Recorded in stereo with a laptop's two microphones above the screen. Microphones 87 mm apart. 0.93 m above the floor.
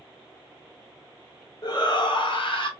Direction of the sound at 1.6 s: 50° left (ahead or behind).